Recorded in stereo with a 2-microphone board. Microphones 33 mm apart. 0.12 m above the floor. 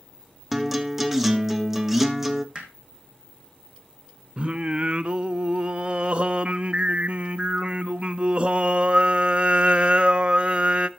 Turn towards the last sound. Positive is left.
turn(degrees=-35)  # may be behind; listen again after turning